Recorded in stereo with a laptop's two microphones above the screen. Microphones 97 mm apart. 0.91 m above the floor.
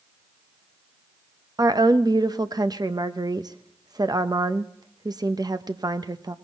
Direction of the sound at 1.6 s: 45° right (ahead or behind).